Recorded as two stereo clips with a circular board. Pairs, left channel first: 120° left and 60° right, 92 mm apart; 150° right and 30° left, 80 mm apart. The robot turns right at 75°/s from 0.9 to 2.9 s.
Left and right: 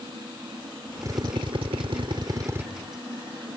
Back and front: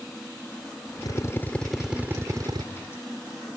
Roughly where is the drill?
Behind right.